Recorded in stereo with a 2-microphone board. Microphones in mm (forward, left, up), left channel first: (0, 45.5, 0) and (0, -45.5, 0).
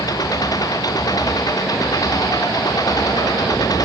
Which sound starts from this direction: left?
An engine running, at 0.0 s.